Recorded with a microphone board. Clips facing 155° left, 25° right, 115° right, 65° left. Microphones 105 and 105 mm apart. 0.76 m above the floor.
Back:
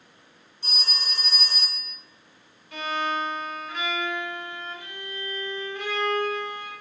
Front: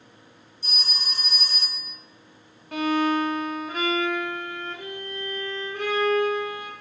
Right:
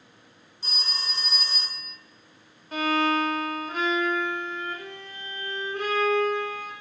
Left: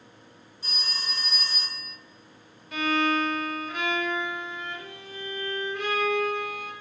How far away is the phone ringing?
About 1.1 m.